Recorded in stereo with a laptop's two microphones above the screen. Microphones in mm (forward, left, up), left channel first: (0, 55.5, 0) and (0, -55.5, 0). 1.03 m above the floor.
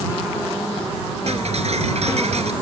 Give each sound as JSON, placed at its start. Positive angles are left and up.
{"t": 1.3, "sound": "ticking", "side_deg": -70}